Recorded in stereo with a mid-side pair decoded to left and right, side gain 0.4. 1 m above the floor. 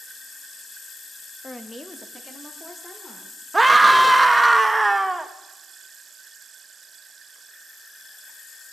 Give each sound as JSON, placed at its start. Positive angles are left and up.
{"t": 1.4, "sound": "a woman speaking", "azimuth_deg": 15, "distance_m": 0.8}
{"t": 3.5, "sound": "a scream", "azimuth_deg": -20, "distance_m": 0.9}